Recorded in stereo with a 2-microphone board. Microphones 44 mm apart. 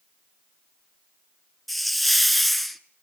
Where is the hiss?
Centre (ahead or behind), 0.7 m.